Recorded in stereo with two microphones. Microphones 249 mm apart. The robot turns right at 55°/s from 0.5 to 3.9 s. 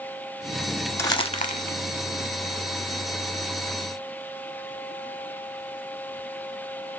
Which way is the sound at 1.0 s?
10° left (ahead or behind).